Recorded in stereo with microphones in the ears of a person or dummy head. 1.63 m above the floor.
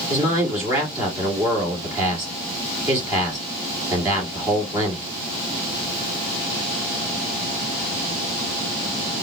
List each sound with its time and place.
0.1 s a man speaking: 15° right (ahead or behind), 3.5 m